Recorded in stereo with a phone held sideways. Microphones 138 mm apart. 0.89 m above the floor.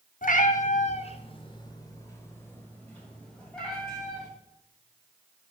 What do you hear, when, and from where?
0.2 s a cat meowing: 70° left (ahead or behind), 0.9 m; by 4.3 s centre (ahead or behind), 2.5 m